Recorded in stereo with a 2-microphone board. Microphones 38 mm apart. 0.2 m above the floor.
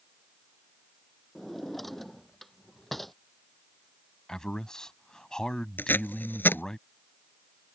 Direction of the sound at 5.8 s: 65° left (ahead or behind).